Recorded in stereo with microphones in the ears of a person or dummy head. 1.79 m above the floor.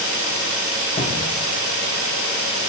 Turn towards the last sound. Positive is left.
turn(degrees=25)  # may be behind; listen again after turning